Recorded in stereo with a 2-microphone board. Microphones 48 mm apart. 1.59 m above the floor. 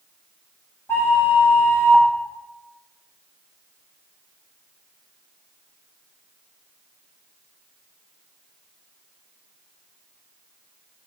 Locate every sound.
0.9 s a flute: 50° left (ahead or behind), 1.3 m